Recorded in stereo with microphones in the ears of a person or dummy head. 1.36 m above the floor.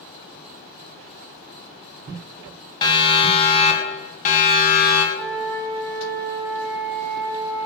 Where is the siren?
20° left (ahead or behind), 3 m; by 5.0 s 55° left (ahead or behind), 3.5 m.